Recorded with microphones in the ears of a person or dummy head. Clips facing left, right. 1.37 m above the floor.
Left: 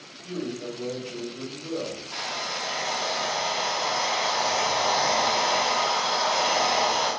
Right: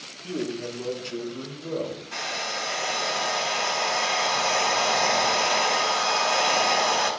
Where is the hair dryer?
35° right (ahead or behind), 3 m.